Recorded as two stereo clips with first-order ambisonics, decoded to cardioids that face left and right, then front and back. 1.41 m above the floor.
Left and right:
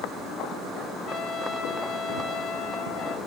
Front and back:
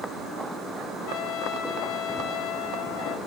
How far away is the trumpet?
About 1.7 m.